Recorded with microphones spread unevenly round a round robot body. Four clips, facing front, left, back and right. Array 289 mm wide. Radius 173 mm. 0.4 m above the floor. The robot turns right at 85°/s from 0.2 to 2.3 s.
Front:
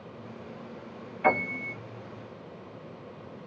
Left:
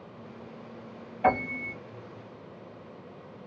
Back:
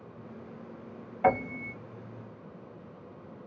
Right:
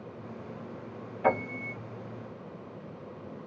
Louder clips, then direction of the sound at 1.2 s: Left 2 dB, even; 155° left.